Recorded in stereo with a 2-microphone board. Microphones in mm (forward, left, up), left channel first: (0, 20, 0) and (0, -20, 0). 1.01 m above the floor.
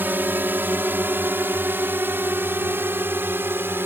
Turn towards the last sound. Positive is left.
turn(degrees=-70)  # may be behind; listen again after turning